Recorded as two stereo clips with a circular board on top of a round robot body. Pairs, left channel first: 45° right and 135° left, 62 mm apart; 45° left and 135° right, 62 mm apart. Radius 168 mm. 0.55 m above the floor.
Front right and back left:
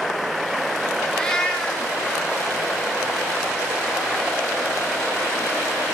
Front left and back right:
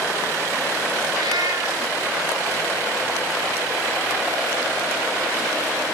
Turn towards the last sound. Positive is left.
turn(degrees=-125)